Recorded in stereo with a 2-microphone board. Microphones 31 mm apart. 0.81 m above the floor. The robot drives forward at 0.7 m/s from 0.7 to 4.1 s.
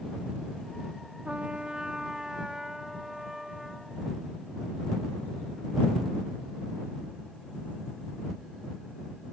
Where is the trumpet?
40° right (ahead or behind); by 4.0 s 10° right (ahead or behind).